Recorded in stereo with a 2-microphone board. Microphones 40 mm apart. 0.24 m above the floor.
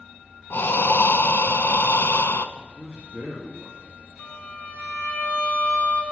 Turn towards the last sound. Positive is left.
turn(degrees=50)  # may be behind; listen again after turning